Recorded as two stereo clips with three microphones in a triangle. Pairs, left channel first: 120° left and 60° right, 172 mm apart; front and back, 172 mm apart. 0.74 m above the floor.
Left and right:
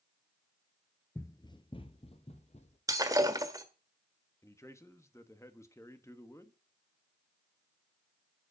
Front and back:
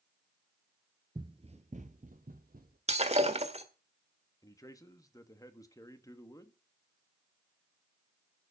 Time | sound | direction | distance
1.1 | running footsteps | 170° left | 0.7 m
2.9 | breaking glass | 130° right | 1.5 m
4.4 | a man speaking | 55° left | 1.3 m